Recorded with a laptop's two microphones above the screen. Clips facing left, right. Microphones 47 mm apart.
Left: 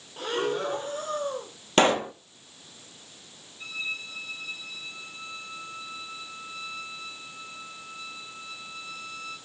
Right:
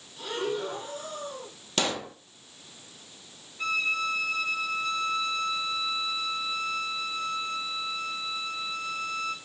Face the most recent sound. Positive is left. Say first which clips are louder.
# right 7 dB
turn(degrees=-70)  # may be behind; listen again after turning